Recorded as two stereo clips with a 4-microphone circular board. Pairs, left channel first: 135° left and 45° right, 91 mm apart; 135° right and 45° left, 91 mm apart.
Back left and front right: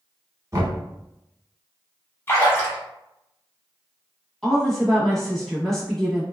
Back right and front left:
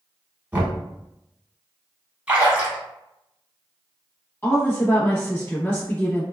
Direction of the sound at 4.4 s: 145° right.